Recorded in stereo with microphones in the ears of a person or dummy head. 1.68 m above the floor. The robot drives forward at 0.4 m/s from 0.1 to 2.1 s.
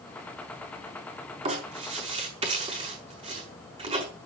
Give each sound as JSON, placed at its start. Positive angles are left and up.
{"t": 1.4, "sound": "writing", "side_deg": -25, "distance_m": 5.5}